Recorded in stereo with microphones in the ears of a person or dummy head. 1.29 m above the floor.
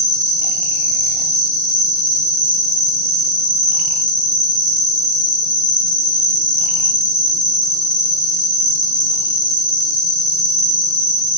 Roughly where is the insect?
Left.